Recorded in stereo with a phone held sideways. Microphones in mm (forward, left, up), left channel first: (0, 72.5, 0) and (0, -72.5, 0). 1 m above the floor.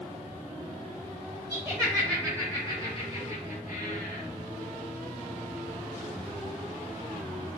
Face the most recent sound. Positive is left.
turn(degrees=75)  # may be behind; listen again after turning